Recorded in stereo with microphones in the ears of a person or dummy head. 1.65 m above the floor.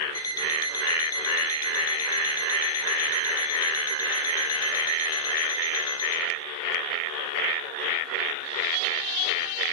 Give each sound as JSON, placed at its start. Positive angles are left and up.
{"t": 0.1, "sound": "an alarm clock", "side_deg": 25, "distance_m": 4.0}